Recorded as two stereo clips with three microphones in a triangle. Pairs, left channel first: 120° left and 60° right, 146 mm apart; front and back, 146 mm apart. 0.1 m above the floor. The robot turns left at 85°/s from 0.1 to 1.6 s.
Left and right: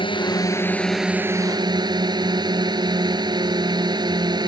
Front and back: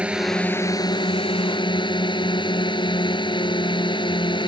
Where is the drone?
105° left; by 4.5 s 25° right.